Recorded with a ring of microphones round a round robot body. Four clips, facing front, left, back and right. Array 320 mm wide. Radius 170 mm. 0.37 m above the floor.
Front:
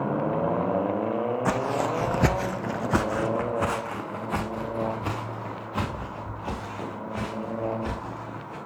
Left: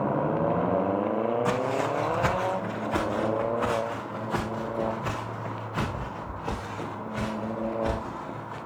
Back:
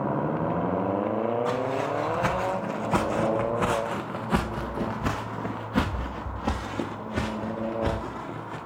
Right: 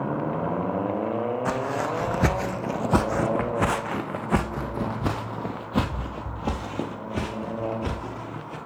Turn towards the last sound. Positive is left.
turn(degrees=-120)